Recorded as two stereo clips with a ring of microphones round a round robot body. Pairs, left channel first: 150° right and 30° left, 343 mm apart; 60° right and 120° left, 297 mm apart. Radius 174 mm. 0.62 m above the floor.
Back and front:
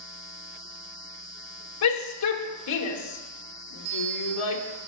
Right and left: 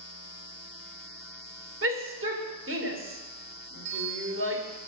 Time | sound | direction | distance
1.8 | a shout | 170° left | 2 m
3.9 | a bell | 65° left | 1.9 m